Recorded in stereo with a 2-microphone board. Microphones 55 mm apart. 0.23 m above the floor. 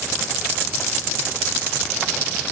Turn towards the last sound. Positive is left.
No sound to turn to.